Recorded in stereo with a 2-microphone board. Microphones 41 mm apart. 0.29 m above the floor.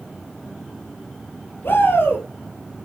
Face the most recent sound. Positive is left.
turn(degrees=60)  # may be behind; listen again after turning